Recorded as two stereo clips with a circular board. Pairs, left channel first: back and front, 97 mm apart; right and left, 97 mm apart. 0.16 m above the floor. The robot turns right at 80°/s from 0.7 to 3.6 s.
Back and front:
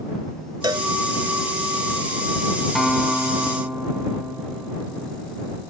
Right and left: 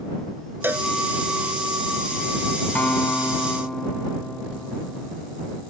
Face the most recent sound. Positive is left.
turn(degrees=-25)